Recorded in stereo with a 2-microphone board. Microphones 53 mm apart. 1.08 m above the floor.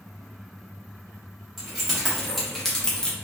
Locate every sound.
1.6 s keys jangling: centre (ahead or behind), 1.7 m; by 3.1 s 20° left (ahead or behind), 0.6 m